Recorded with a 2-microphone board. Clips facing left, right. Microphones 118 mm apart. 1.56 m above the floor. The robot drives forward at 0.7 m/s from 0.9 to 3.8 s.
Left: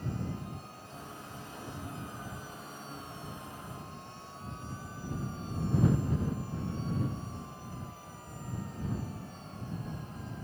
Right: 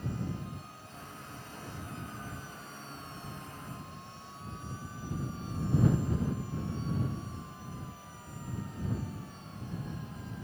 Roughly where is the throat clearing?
No throat clearing in this recording.